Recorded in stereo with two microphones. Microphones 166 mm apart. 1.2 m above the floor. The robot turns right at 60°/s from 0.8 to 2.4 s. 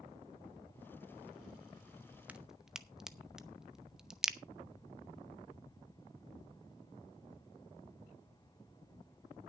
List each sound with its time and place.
2.3 s a crack: 10° right (ahead or behind), 0.7 m; by 4.4 s 5° right (ahead or behind), 0.7 m